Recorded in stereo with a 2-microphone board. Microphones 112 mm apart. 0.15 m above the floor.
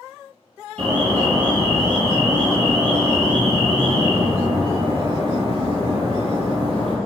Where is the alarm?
50° right (ahead or behind), 1.3 m.